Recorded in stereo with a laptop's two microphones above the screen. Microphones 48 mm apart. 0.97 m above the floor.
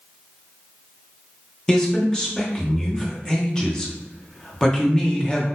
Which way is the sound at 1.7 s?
15° left (ahead or behind).